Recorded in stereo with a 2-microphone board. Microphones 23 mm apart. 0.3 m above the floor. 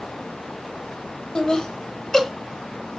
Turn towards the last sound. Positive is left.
turn(degrees=10)  # may be behind; listen again after turning